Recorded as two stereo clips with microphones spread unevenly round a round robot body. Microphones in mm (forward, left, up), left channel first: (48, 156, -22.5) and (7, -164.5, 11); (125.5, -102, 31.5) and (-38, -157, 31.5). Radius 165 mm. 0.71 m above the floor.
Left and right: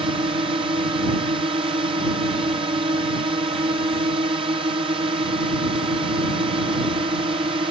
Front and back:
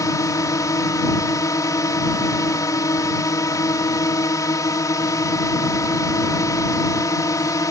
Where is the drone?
30° right.